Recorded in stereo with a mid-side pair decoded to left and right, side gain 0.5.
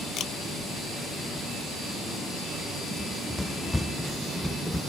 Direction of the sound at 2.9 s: 5° left.